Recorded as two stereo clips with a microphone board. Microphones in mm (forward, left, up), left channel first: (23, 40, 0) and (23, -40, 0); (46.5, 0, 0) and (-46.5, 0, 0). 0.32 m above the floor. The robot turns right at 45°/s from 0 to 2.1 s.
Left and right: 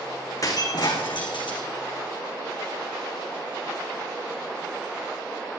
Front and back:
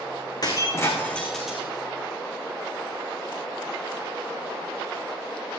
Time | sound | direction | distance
0.4 | breaking glass | 45° left | 3.5 m